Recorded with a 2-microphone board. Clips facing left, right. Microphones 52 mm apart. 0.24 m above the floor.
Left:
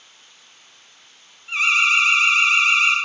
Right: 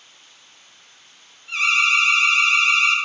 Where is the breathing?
No breathing in this recording.